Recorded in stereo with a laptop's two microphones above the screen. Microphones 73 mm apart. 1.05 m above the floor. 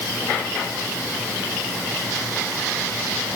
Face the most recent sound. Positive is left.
No sound to turn to.